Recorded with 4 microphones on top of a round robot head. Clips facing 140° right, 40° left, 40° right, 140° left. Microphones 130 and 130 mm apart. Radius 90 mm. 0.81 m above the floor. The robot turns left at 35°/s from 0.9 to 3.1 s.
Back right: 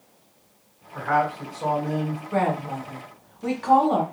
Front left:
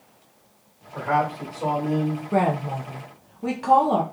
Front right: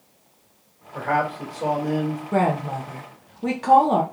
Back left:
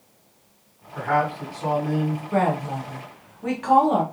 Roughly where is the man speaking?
Ahead.